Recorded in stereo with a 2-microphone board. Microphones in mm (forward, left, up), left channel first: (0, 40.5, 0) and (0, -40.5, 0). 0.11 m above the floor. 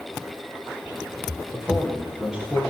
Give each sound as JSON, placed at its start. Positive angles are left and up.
{"t": 1.5, "sound": "a man speaking", "side_deg": -5, "distance_m": 9.5}